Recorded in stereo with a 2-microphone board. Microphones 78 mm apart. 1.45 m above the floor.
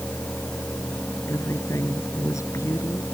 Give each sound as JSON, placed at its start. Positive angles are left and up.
{"t": 1.3, "sound": "a woman speaking", "side_deg": 40}